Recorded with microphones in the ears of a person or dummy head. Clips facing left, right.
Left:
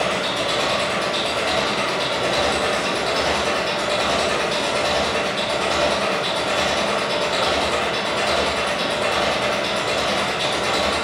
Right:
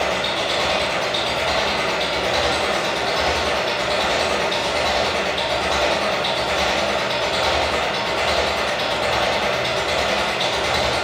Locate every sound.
0.0 s an engine running: 55° left (ahead or behind), 1.9 m